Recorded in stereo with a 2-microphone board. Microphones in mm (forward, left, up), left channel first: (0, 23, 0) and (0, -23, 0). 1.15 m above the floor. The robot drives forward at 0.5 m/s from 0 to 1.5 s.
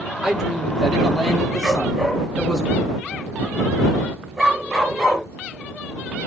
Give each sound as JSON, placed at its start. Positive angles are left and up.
{"t": 0.2, "sound": "a man speaking", "side_deg": -15, "distance_m": 2.0}
{"t": 1.6, "sound": "a dog barking", "side_deg": -10, "distance_m": 6.0}